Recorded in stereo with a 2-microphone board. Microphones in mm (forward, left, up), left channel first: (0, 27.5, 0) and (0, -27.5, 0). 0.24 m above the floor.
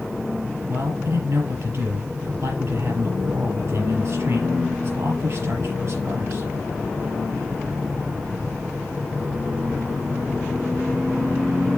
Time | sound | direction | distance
0.7 | a man speaking | 60° right (ahead or behind) | 5 m